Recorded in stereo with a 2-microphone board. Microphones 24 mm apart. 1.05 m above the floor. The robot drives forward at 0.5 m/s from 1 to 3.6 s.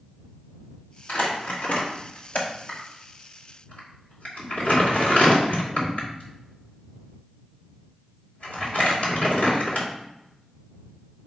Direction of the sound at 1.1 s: 80° left.